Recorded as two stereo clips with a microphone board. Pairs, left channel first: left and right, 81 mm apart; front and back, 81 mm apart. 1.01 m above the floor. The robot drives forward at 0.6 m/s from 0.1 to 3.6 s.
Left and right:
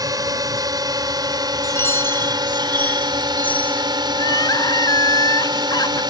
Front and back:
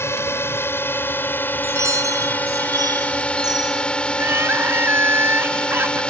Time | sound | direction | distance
0.0 | a drone | 55° right | ?
1.6 | a chime | 140° left | ?
4.1 | crying | 120° left | ?